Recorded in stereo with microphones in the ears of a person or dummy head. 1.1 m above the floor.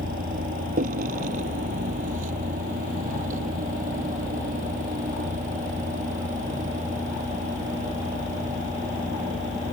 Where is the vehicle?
50° right (ahead or behind); by 9.7 s 45° right (ahead or behind).